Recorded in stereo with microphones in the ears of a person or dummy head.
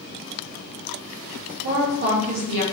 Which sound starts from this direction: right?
A woman speaking, at 1.6 s.